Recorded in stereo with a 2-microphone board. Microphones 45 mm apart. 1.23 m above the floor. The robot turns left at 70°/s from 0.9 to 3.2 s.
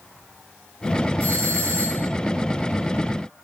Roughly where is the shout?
No shout in this recording.